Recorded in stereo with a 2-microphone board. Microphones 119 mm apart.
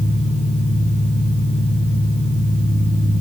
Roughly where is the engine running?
Left.